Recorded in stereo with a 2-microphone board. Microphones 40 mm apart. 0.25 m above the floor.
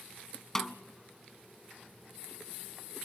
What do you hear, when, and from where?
0.6 s a snare drum: 10° left (ahead or behind), 0.8 m